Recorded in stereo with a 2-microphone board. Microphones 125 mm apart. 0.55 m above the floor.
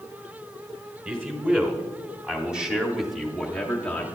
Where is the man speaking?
15° right (ahead or behind), 2.5 m; by 4.1 s 10° left (ahead or behind), 1.2 m.